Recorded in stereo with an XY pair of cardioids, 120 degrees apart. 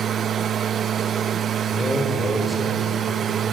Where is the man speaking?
20° left, 6 m.